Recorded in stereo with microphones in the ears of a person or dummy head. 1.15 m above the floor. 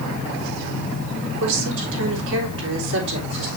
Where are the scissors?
I don't hear scissors.